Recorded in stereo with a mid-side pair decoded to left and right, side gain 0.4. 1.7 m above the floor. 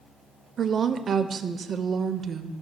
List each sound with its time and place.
0.6 s a woman speaking: 55° right, 0.6 m